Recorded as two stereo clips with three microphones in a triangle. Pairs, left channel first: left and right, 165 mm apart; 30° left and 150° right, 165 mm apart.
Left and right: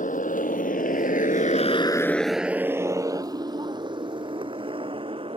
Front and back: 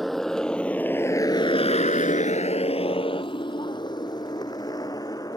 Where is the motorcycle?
120° left; by 5.4 s 35° right.